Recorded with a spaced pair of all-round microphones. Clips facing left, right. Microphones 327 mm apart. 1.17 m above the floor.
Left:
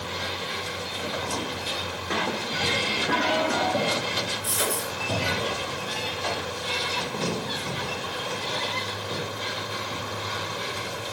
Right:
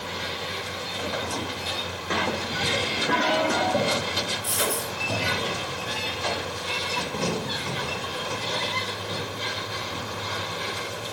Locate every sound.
4.4 s a dropped coin: 70° left (ahead or behind), 8 m